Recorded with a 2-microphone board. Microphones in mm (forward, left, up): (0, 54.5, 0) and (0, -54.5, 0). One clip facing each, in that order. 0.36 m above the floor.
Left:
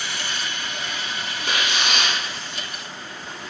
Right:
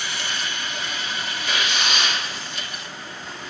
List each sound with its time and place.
1.4 s tearing paper: 65° left (ahead or behind), 1.5 m